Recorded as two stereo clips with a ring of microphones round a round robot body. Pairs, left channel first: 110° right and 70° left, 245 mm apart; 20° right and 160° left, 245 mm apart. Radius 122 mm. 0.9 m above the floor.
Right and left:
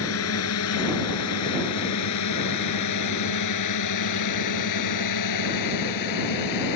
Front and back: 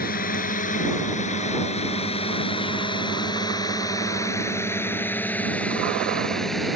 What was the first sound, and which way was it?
A drone, 80° right.